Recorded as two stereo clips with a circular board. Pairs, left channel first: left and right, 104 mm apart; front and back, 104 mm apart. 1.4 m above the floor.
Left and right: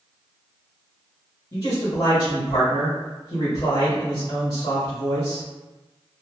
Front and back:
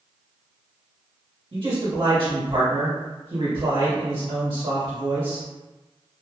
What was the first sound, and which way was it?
A man speaking, 130° left.